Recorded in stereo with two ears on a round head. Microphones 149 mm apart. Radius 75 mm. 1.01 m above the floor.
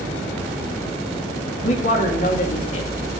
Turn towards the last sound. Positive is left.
turn(degrees=45)  # may be behind; listen again after turning